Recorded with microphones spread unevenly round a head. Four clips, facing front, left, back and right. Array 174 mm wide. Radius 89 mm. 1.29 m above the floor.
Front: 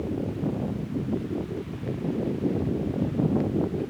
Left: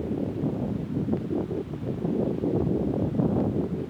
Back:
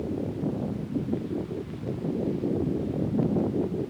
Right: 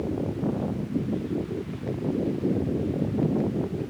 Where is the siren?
No siren in this recording.